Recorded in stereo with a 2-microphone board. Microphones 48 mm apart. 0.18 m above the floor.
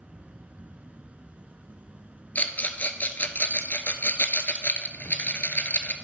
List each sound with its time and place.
0.0 s an insect: 25° right (ahead or behind), 0.7 m
2.4 s a rattle: 35° left (ahead or behind), 0.8 m